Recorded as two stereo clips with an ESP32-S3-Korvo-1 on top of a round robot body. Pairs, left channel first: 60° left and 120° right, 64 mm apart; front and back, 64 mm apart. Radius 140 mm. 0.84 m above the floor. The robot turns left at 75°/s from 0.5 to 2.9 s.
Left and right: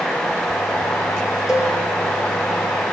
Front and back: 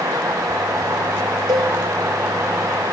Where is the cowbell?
160° left, 0.7 m; by 1.8 s 140° left, 0.7 m.